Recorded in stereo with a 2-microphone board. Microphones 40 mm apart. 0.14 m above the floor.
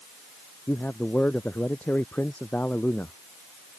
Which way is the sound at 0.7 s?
40° left (ahead or behind).